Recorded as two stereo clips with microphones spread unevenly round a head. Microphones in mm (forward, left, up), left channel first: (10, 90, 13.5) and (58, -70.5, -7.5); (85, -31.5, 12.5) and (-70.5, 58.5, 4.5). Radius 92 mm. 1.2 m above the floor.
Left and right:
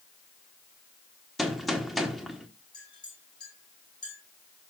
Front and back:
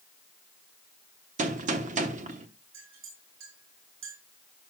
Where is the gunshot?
170° right, 1.0 m.